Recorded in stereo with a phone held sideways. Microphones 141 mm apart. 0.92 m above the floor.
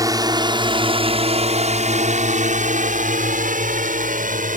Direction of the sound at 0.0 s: 25° right (ahead or behind).